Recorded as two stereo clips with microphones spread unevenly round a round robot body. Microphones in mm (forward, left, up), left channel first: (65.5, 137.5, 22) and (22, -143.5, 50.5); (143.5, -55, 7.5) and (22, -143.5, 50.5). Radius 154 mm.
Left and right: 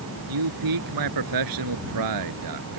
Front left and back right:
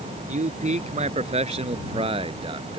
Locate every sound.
0.3 s a man speaking: 110° right; by 2.8 s 90° right